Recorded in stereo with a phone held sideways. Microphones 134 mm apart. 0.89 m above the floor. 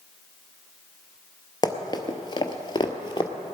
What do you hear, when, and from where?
1.6 s running footsteps: 30° left (ahead or behind), 1.0 m; by 3.3 s 35° left (ahead or behind), 1.2 m